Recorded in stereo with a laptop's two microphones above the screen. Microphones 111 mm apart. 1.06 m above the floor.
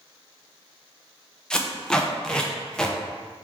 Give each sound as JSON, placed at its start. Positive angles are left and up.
{"t": 1.5, "sound": "tape being pulled", "side_deg": 5, "distance_m": 0.5}